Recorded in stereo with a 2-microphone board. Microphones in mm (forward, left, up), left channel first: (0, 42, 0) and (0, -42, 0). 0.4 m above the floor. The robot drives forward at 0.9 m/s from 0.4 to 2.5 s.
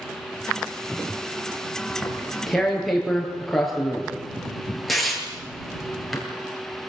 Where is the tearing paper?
Centre (ahead or behind), 5 m.